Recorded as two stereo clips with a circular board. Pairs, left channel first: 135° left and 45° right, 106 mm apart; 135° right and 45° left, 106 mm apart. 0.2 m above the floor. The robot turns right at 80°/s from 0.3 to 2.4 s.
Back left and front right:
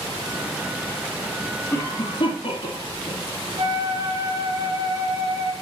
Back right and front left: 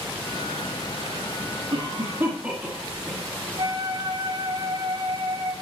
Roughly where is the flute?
Ahead.